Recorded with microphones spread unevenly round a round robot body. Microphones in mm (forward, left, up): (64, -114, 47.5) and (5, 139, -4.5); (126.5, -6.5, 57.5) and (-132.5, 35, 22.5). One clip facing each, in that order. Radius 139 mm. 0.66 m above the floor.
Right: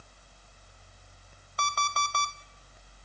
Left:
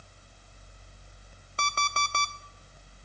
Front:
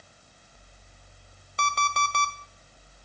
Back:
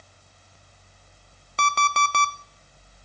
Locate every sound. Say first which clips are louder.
1.6 s an alarm clock: even, back 4 dB; 160° left, 0.7 m